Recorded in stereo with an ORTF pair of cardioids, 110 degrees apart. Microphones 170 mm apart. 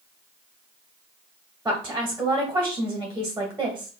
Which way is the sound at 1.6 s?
10° right.